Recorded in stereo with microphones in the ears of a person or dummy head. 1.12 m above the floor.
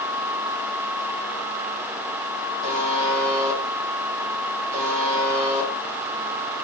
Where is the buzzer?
30° right (ahead or behind), 0.8 m.